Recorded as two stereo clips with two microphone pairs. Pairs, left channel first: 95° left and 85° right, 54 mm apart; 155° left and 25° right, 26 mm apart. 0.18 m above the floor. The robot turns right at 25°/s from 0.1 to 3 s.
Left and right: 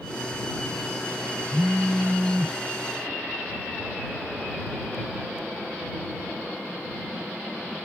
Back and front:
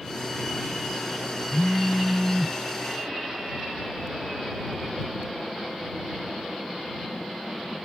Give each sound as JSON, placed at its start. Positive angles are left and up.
{"t": 1.5, "sound": "a phone buzzing", "azimuth_deg": -105}